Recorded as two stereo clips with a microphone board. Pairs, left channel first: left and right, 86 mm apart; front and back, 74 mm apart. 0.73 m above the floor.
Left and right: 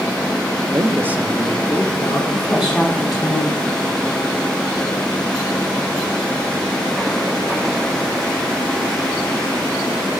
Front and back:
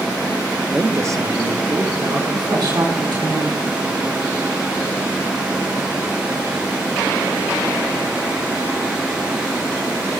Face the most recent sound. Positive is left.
turn(degrees=180)